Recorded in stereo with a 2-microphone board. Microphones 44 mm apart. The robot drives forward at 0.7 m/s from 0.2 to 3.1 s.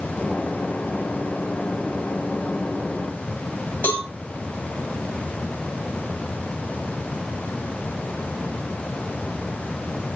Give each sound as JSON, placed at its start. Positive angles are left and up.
{"t": 3.8, "sound": "a cowbell", "side_deg": 55, "distance_m": 3.0}